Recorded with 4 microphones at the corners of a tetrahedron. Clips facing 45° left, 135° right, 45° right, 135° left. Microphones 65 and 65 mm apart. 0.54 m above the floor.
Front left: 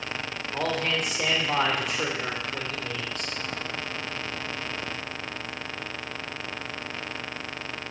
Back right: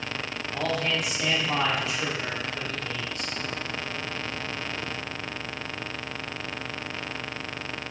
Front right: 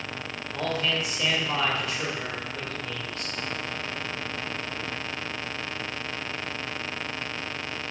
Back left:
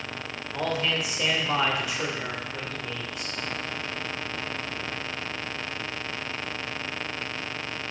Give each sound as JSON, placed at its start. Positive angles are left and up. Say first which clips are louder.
{"t": 0.5, "sound": "a man speaking", "louder": "even, back left 1 dB", "azimuth_deg": 60, "distance_m": 2.0}